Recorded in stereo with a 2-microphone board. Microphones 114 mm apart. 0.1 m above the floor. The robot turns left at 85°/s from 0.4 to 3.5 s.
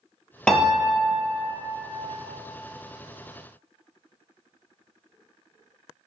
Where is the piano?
10° left, 0.5 m; by 1.4 s 70° right, 0.5 m.